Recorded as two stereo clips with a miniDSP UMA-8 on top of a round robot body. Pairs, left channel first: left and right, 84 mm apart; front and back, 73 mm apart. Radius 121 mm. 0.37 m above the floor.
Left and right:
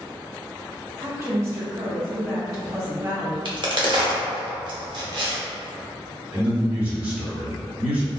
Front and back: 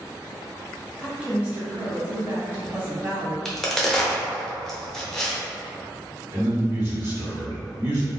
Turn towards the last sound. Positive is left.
turn(degrees=-150)